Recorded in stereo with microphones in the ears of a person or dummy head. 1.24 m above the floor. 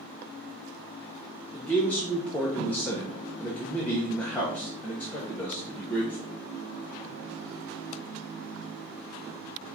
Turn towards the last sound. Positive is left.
turn(degrees=5)  # may be behind; listen again after turning